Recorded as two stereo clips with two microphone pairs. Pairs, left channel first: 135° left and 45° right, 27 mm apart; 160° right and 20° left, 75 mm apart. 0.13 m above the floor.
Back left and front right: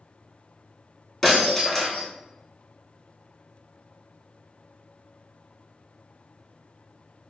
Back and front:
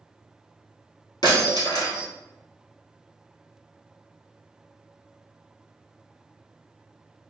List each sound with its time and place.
1.2 s breaking glass: 150° right, 1.8 m